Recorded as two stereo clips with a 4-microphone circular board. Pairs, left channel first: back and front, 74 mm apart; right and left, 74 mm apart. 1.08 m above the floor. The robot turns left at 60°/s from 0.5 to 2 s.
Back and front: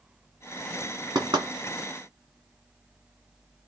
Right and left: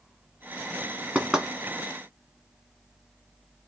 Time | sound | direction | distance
1.1 | knocking | 25° left | 1.6 m